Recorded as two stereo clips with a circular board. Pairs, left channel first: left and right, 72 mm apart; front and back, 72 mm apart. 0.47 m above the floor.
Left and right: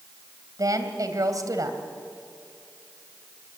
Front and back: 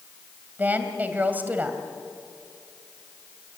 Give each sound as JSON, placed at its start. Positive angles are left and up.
{"t": 0.6, "sound": "a woman speaking", "azimuth_deg": -115, "distance_m": 2.5}